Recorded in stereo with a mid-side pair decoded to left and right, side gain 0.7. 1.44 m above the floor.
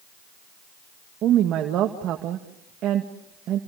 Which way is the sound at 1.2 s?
50° right.